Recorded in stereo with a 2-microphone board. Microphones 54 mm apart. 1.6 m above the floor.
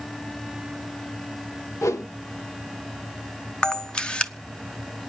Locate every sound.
1.8 s a whoosh: 60° left (ahead or behind), 1.0 m
3.6 s a camera shutter: 20° left (ahead or behind), 0.7 m